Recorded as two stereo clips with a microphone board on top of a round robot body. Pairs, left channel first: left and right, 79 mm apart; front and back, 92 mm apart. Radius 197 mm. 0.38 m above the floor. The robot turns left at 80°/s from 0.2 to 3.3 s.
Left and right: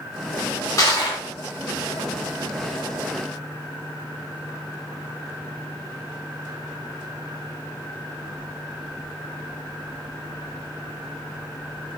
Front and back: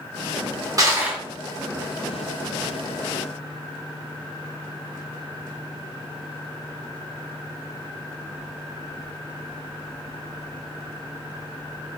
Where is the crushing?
130° left, 1.0 m; by 1.2 s 95° left, 1.0 m.